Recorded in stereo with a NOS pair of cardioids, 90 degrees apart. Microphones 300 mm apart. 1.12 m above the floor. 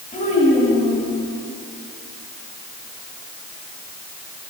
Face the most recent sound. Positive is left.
turn(degrees=30)